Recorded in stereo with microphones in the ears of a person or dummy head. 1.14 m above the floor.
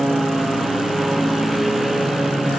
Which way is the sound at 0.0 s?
Centre (ahead or behind).